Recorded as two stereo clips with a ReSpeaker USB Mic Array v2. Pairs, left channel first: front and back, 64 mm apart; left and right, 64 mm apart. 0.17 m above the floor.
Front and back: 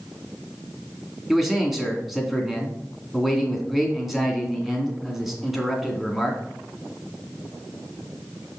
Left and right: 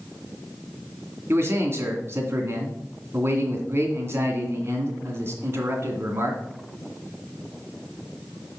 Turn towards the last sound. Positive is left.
turn(degrees=-95)